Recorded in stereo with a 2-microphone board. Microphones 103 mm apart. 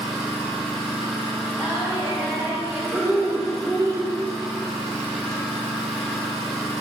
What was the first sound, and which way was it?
An engine running, 5° left (ahead or behind).